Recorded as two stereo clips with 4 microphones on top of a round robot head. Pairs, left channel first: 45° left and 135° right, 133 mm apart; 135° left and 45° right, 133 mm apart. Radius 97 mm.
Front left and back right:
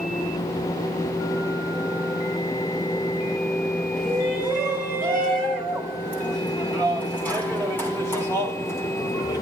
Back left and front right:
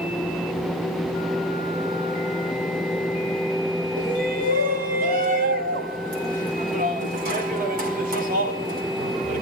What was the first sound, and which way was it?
A shout, 45° right.